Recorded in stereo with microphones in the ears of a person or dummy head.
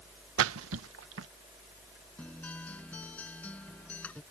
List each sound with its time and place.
0.4 s a splash: 80° right
2.2 s a guitar: 5° left (ahead or behind)